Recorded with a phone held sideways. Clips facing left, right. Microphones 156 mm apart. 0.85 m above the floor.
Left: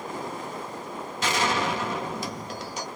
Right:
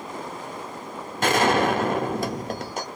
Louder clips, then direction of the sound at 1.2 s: Right 6 dB; 55° right (ahead or behind).